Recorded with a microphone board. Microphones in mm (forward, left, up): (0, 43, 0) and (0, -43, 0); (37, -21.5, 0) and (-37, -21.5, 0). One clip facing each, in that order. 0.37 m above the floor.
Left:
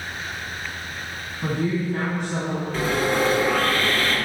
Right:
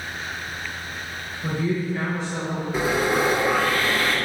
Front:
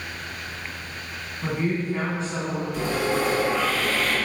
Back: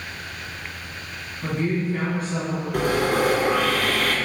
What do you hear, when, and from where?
1.4 s a woman speaking: 75° left, 3 m; by 2.6 s 60° left, 3 m
2.7 s sawing: 165° right, 3 m